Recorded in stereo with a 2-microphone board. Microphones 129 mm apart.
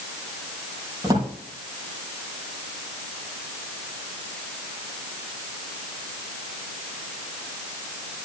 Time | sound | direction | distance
1.0 | a drawer | 25° right (ahead or behind) | 5.5 m